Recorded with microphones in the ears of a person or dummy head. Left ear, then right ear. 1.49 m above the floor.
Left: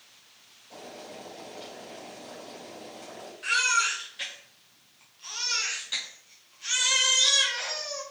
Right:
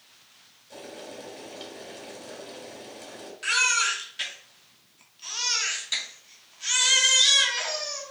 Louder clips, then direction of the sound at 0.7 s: Right 2 dB; 35° right (ahead or behind).